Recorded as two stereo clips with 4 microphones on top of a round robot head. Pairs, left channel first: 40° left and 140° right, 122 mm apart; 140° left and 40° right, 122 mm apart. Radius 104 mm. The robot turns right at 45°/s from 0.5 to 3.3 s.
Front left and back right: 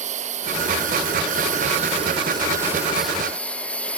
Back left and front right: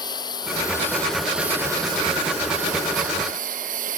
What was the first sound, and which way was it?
A lawn mower, 165° right.